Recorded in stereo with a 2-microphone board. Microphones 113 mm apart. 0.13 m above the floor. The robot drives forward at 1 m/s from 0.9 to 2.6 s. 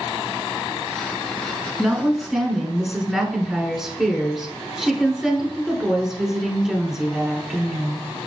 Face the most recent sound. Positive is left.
turn(degrees=-5)  # may be behind; listen again after turning